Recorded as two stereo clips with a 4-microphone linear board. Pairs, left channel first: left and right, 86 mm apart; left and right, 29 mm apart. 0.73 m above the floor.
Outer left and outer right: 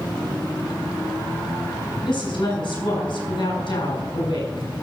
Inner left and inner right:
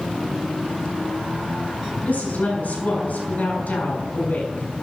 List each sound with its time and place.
2.0 s a woman speaking: 80° left, 3.5 m